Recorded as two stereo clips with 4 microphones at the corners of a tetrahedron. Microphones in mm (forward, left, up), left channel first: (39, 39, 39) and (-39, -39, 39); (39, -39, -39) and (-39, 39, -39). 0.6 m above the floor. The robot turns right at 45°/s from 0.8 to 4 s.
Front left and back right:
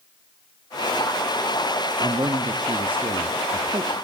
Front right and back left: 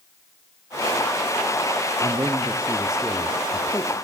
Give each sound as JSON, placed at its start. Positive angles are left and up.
{"t": 2.0, "sound": "a man speaking", "azimuth_deg": 175, "distance_m": 1.0}